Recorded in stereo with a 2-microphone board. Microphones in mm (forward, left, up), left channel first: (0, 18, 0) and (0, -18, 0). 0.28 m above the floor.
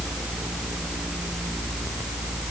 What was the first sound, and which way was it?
Only background noise.